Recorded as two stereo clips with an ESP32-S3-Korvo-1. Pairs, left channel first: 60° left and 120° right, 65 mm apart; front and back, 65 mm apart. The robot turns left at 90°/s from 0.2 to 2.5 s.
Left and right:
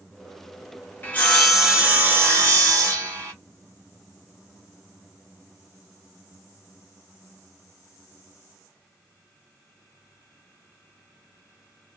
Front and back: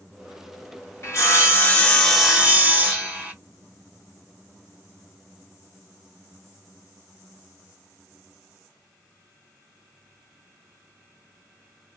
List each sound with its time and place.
1.0 s sawing: 10° left, 1.3 m; by 3.3 s 120° right, 1.3 m